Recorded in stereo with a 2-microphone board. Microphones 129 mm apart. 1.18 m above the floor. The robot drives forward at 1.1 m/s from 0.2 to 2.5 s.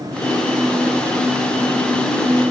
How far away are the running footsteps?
I don't hear running footsteps.